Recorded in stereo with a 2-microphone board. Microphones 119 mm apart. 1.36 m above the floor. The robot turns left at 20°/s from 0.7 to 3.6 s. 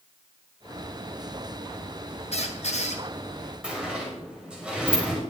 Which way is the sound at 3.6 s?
10° right (ahead or behind).